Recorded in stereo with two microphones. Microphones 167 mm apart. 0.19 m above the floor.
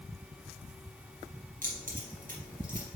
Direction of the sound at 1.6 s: 55° right (ahead or behind).